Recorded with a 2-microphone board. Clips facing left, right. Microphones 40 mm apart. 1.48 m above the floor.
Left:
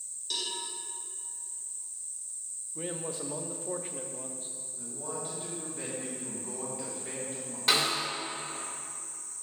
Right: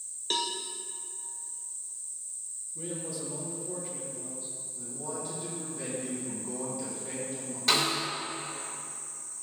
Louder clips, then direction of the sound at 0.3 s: Right 5 dB; 55° right (ahead or behind).